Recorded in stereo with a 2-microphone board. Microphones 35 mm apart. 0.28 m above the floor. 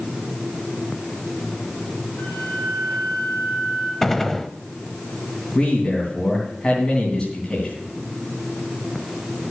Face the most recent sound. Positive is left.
turn(degrees=30)  # may be behind; listen again after turning